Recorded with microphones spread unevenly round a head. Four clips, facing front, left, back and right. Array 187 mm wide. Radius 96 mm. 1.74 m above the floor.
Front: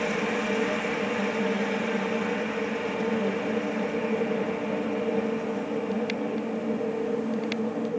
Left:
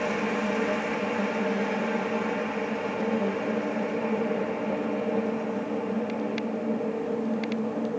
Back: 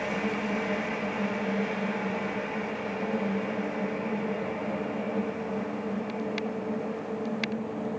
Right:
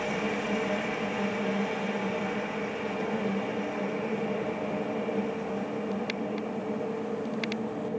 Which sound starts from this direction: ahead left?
A machine running, at 0.0 s.